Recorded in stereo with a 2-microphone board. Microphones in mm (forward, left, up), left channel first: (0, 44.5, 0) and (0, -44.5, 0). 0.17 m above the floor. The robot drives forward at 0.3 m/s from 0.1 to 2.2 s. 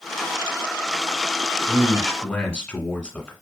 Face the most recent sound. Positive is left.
turn(degrees=10)  # may be behind; listen again after turning